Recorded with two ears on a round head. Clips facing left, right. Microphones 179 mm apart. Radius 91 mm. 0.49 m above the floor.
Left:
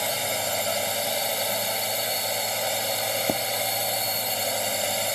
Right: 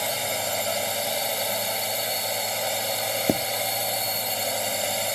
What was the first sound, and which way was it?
A drone, centre (ahead or behind).